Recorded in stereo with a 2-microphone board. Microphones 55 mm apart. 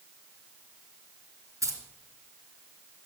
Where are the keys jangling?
70° right (ahead or behind), 2.5 m.